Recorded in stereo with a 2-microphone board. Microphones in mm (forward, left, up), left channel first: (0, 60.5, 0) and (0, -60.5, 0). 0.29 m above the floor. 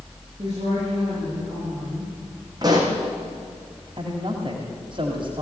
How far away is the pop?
About 4 m.